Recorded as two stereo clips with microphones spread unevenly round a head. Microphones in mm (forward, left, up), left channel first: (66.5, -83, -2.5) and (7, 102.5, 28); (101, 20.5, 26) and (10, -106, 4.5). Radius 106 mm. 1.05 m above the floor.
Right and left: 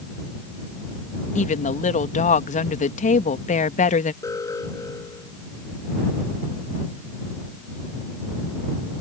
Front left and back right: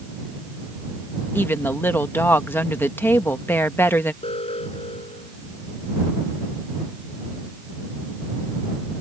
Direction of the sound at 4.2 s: 5° left.